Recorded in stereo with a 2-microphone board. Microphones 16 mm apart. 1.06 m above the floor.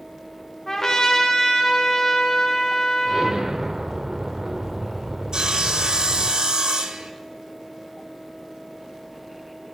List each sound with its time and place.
0.7 s a trumpet: 30° left (ahead or behind), 2.5 m
3.0 s an explosion: 45° right (ahead or behind), 1.6 m
5.3 s sawing: 55° right (ahead or behind), 1.3 m